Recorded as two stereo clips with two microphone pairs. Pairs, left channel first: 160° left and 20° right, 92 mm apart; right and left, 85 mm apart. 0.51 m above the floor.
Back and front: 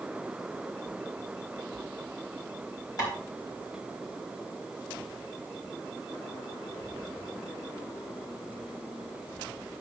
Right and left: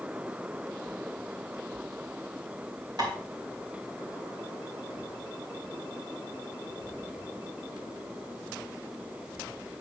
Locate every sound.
3.0 s tapping: 120° left, 4 m